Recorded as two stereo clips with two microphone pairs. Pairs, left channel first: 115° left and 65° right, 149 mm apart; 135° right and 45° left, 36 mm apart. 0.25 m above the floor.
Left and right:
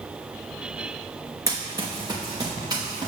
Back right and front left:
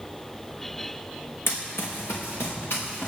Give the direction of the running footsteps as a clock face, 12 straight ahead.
4 o'clock.